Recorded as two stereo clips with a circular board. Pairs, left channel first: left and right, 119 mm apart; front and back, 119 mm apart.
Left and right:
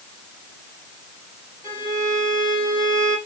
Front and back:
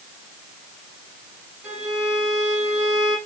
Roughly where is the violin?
Behind.